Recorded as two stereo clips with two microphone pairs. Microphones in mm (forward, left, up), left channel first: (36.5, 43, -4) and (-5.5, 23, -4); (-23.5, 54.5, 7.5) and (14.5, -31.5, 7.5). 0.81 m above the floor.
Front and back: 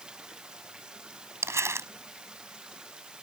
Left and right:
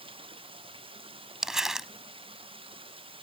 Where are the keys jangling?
I don't hear keys jangling.